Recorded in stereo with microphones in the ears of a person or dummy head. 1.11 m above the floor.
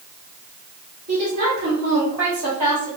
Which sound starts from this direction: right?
A woman speaking, at 1.1 s.